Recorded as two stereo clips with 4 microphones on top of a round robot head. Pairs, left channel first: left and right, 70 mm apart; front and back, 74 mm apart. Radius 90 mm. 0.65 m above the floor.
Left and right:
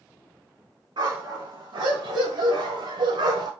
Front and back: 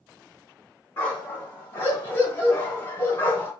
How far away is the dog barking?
About 3 m.